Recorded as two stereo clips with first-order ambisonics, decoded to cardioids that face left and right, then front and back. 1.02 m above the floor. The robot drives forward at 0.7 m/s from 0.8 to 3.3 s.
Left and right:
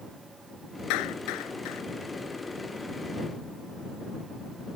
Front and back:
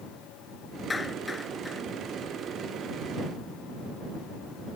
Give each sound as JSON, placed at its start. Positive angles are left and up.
{"t": 0.9, "sound": "a clap", "azimuth_deg": 75}